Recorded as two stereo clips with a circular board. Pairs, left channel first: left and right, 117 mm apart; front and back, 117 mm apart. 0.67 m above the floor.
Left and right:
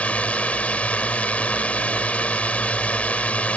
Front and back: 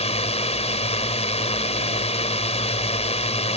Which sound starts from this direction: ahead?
A drone, at 0.0 s.